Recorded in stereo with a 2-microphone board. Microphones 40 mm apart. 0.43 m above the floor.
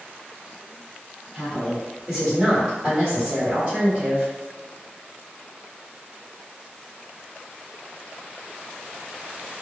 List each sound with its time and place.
1.3 s a woman speaking: 5° left (ahead or behind), 1.3 m; by 4.3 s 35° right (ahead or behind), 1.5 m